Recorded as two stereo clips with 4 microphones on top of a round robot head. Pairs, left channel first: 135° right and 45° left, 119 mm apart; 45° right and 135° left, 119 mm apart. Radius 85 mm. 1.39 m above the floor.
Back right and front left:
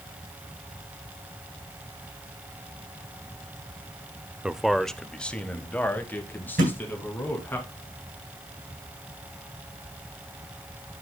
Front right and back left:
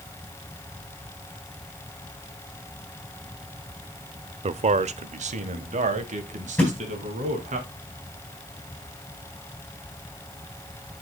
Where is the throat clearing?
I don't hear throat clearing.